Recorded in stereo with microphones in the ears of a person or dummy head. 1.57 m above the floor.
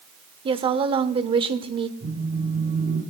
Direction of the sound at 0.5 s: 30° right (ahead or behind).